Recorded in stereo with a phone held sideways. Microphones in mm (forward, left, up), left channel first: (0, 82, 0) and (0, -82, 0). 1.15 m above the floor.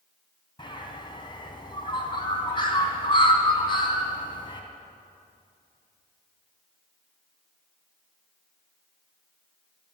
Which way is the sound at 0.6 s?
30° left (ahead or behind).